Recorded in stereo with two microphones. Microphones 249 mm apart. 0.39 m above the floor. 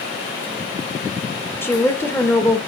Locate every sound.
1.6 s a woman speaking: 10° left (ahead or behind), 1.1 m